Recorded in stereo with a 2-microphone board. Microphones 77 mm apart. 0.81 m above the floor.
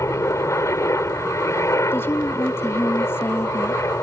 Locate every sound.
0.0 s a helicopter: 35° left (ahead or behind)
1.9 s a woman speaking: 30° left (ahead or behind)